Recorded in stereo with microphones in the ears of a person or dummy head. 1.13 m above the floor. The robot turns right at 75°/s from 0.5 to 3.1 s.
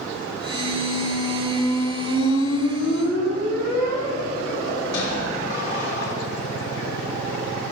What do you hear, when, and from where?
0.5 s a squeak: 65° right, 1.4 m; by 6.1 s 130° left, 1.4 m